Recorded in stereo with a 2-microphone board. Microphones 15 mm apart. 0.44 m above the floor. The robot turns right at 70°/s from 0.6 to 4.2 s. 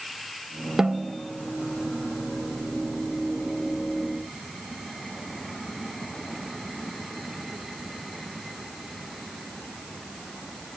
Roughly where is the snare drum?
Right.